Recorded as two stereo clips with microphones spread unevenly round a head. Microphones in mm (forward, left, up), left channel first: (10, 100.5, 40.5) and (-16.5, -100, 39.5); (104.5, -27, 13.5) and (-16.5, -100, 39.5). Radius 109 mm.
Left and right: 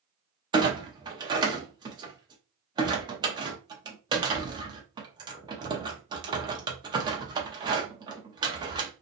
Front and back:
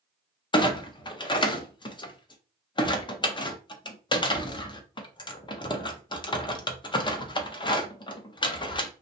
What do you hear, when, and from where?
0.5 s a clunk: 25° right, 0.6 m